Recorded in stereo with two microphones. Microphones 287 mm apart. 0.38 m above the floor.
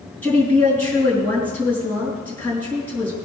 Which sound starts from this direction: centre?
A woman speaking, at 0.2 s.